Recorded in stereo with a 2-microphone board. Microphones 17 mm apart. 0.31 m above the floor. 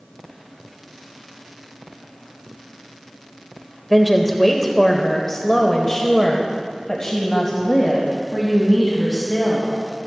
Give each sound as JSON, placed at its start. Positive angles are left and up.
{"t": 3.9, "sound": "a woman speaking", "side_deg": 0, "distance_m": 1.3}